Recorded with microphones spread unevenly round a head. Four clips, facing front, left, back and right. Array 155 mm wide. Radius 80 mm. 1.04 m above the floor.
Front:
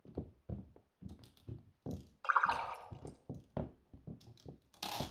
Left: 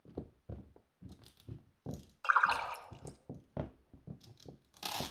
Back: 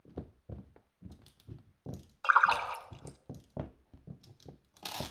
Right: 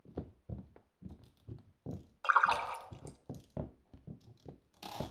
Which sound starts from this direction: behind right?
A splash, at 2.2 s.